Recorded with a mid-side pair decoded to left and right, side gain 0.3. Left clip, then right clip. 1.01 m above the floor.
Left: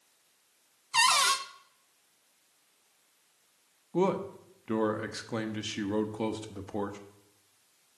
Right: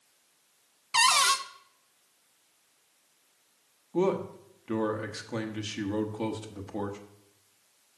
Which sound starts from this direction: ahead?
A cupboard door, at 0.9 s.